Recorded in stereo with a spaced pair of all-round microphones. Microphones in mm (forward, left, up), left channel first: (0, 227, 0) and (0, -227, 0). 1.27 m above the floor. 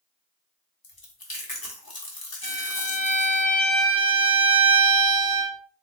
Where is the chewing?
55° left (ahead or behind), 1.2 m.